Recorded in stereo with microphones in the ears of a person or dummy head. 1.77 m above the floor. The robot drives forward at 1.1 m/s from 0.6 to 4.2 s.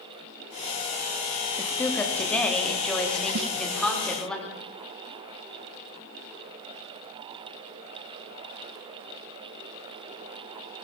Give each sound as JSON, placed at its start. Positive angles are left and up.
{"t": 1.6, "sound": "a woman speaking", "side_deg": 15, "distance_m": 3.0}
{"t": 3.4, "sound": "a snare drum", "side_deg": -60, "distance_m": 1.7}